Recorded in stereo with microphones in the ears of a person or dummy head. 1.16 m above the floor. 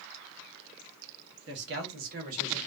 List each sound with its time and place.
1.5 s a man speaking: 60° right (ahead or behind), 1.1 m; by 2.7 s 40° right (ahead or behind), 1.3 m